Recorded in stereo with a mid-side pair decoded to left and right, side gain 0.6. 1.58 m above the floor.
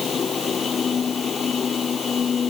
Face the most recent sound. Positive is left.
turn(degrees=35)